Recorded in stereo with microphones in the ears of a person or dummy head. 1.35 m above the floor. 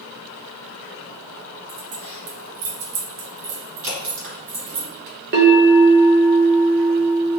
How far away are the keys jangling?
About 1.7 m.